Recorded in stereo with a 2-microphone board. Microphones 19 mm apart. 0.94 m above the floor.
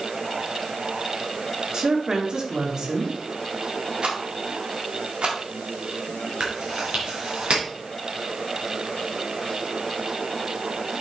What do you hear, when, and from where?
1.7 s a woman speaking: 40° right (ahead or behind), 2 m
4.0 s a rattle: 65° right (ahead or behind), 2 m
6.4 s chewing: 65° right (ahead or behind), 3.5 m